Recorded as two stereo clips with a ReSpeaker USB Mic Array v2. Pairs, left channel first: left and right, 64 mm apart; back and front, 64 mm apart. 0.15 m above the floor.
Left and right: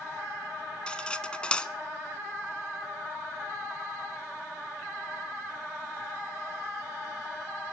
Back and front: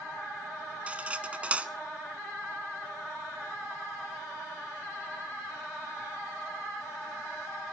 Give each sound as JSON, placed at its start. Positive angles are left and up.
{"t": 0.9, "sound": "cutlery clinking", "azimuth_deg": 40, "distance_m": 0.7}